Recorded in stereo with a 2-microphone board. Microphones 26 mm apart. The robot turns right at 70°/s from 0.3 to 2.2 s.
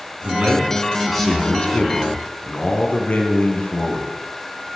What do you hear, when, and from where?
0.2 s a man speaking: 55° right, 3 m; by 4.1 s 80° left, 3 m